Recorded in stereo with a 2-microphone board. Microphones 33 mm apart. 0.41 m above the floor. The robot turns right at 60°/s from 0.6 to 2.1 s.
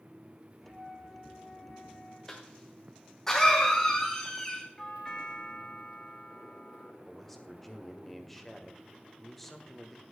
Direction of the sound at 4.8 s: 15° left (ahead or behind).